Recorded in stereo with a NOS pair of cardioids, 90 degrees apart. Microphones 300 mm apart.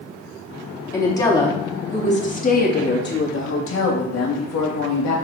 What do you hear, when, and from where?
0.9 s a woman speaking: 10° left, 2.5 m; by 5.1 s 70° left, 2 m